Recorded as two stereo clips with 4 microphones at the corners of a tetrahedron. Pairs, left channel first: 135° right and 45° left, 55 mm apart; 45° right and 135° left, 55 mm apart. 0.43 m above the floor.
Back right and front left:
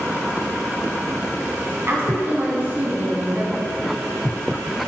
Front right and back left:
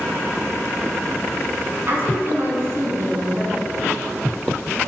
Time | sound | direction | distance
1.9 | a woman speaking | 95° left | 4 m